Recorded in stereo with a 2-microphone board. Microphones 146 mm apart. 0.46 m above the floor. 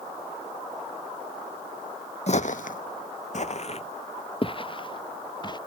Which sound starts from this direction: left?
Footsteps, at 2.3 s.